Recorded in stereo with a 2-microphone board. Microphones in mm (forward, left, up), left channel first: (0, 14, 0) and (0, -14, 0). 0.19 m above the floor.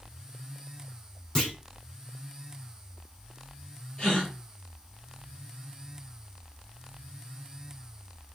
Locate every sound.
1.4 s a clunk: 25° left (ahead or behind), 1.6 m
4.0 s a gasp: 25° left (ahead or behind), 3.5 m